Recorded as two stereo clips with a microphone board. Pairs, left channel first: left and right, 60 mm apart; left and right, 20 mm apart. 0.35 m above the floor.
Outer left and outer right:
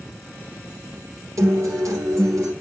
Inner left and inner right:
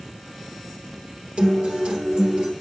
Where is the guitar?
70° right (ahead or behind), 3 m.